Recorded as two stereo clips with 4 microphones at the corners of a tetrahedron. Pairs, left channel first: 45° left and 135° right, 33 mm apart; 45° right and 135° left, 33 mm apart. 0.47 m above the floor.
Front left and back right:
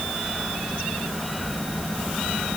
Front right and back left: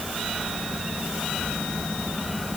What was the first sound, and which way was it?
Only background noise.